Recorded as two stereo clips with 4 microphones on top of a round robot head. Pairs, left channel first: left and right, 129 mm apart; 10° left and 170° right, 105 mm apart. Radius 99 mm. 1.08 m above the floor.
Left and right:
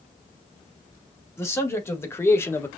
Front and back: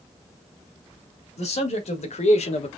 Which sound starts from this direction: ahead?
A man speaking, at 1.4 s.